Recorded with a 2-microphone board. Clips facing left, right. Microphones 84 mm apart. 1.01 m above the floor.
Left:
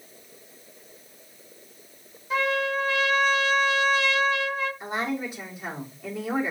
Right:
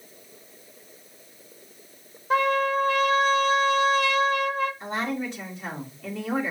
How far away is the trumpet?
About 0.7 m.